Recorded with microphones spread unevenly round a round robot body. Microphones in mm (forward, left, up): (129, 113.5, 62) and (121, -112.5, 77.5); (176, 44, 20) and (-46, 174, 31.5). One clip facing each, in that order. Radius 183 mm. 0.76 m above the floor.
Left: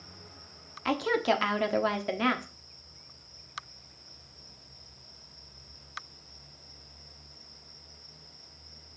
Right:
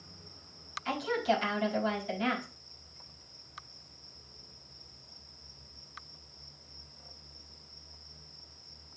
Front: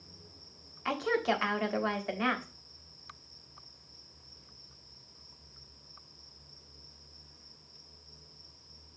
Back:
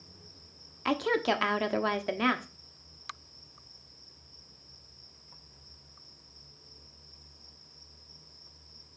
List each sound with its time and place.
0.8 s a woman speaking: 105° left, 1.4 m